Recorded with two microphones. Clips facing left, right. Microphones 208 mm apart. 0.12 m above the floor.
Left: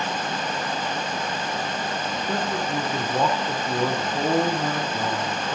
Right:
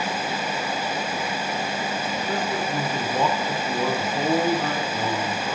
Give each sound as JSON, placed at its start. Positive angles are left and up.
{"t": 2.3, "sound": "a man speaking", "side_deg": 5, "distance_m": 4.0}